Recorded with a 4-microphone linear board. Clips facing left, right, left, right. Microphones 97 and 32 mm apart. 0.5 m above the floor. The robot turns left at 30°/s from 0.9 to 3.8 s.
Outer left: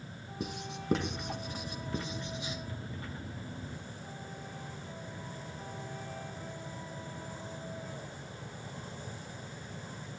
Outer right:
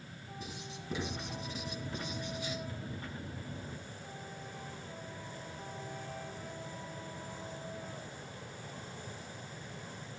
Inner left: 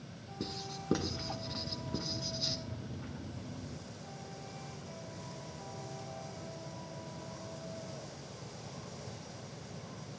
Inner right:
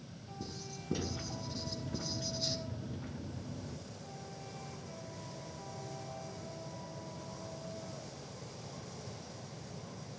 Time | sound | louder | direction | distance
0.4 | writing | outer left 8 dB, inner left 5 dB | 65° left (ahead or behind) | 2.5 m